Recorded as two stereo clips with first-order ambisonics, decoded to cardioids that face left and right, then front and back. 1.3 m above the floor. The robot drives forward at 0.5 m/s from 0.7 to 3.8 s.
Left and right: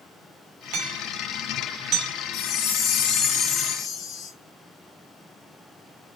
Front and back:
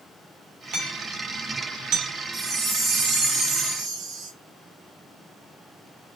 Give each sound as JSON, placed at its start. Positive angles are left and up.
{"t": 0.7, "sound": "hammering", "azimuth_deg": -125, "distance_m": 3.0}
{"t": 2.3, "sound": "a chime", "azimuth_deg": 110, "distance_m": 1.6}